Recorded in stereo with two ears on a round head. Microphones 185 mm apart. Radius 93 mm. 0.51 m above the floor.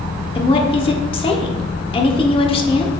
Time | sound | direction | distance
0.3 | a woman speaking | 30° left (ahead or behind) | 1.0 m